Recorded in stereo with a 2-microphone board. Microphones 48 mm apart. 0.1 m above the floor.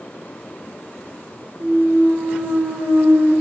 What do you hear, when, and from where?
1.6 s a clunk: 70° right (ahead or behind), 3.5 m